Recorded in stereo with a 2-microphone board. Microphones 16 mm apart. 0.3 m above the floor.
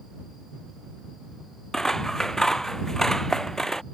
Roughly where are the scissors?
Left.